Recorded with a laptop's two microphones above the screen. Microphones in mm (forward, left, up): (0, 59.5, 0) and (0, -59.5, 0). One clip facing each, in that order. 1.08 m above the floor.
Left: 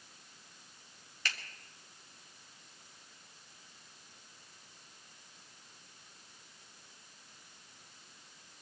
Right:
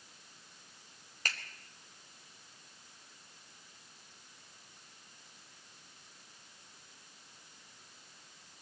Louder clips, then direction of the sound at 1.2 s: Even; 45° right (ahead or behind).